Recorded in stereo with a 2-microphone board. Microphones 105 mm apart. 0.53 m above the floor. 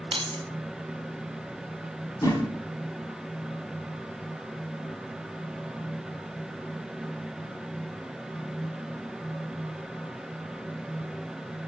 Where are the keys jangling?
55° right (ahead or behind), 0.9 m.